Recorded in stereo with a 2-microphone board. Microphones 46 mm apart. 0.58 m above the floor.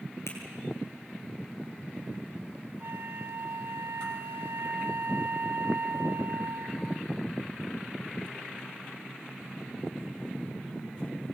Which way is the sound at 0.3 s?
80° left.